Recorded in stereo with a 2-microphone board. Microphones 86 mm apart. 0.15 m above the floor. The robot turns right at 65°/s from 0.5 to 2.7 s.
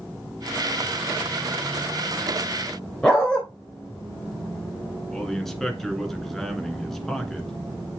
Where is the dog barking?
10° left (ahead or behind), 3.5 m.